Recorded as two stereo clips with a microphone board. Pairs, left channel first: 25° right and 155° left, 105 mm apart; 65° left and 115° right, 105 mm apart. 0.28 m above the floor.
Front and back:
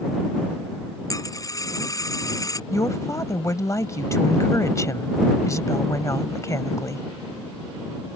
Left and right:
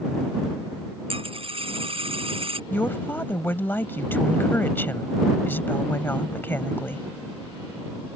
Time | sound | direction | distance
1.1 | a dropped coin | 80° right | ?
2.7 | a woman speaking | 10° left | ?